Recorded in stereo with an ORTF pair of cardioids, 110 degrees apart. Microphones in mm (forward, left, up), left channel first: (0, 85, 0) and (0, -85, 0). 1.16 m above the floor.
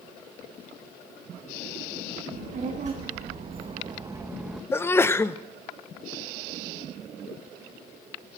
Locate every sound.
2.3 s a child speaking: 50° right, 1.7 m; by 4.6 s straight ahead, 0.8 m
4.7 s a sneeze: 15° left, 0.7 m